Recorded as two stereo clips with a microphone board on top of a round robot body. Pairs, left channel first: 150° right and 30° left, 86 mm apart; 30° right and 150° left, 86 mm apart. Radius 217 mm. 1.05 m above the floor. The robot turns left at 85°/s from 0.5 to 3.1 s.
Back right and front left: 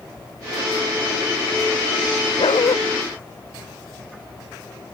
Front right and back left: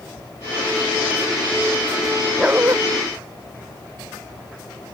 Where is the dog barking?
130° right; by 2.8 s 165° right.